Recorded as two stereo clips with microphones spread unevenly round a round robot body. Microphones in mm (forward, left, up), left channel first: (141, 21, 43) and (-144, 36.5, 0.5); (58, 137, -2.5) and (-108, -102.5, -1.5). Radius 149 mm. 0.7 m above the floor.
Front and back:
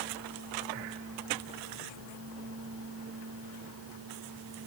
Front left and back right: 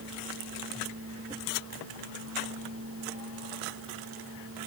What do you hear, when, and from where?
Only background noise.